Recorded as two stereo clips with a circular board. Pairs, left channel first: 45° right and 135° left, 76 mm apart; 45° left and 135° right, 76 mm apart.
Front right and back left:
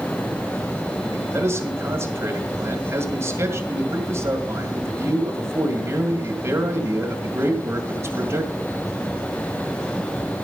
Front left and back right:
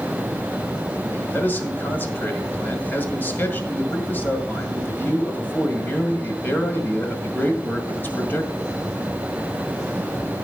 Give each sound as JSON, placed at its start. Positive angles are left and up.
{"t": 1.1, "sound": "a man speaking", "azimuth_deg": 100, "distance_m": 2.0}